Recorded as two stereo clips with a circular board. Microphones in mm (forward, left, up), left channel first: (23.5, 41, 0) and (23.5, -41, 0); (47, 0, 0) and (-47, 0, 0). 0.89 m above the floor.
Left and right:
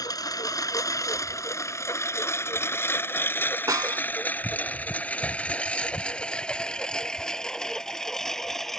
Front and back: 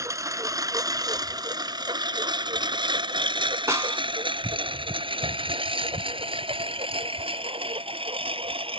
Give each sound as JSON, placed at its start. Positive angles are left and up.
{"t": 0.0, "sound": "a lawn mower", "azimuth_deg": 125}
{"t": 3.7, "sound": "a snare drum", "azimuth_deg": -125}